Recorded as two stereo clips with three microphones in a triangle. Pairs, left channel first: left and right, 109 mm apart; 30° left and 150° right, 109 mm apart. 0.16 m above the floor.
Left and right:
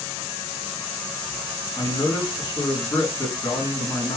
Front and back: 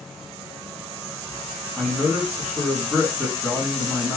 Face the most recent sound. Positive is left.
turn(degrees=130)